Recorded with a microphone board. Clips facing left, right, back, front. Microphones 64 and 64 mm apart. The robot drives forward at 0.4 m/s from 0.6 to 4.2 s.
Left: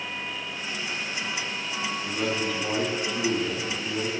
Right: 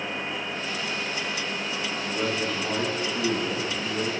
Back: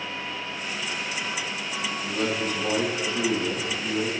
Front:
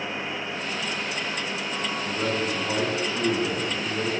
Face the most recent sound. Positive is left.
turn(degrees=170)